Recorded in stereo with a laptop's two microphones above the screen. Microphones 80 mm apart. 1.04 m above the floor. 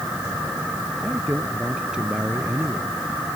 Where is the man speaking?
5° right (ahead or behind); by 3.4 s 15° right (ahead or behind).